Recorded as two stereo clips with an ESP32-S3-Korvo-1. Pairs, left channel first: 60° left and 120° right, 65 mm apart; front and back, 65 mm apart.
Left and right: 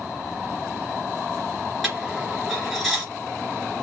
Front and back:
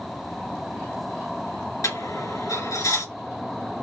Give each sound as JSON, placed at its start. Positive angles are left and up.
{"t": 1.8, "sound": "a dropped coin", "azimuth_deg": -30, "distance_m": 2.0}